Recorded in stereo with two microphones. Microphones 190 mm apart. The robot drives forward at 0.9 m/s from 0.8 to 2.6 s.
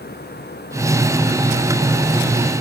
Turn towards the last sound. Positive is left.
No sound to turn to.